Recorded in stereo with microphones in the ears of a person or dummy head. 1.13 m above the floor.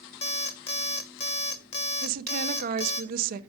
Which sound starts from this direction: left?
An alarm clock, at 0.2 s.